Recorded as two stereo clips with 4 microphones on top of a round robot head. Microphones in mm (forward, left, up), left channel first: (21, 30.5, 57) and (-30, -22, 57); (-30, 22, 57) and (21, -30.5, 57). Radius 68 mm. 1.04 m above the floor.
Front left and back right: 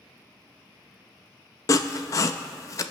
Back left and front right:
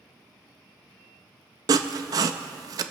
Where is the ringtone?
I don't hear a ringtone.